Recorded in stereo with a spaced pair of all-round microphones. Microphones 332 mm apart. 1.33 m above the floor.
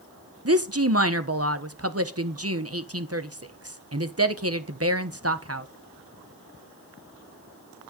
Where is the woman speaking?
40° right (ahead or behind), 1.2 m.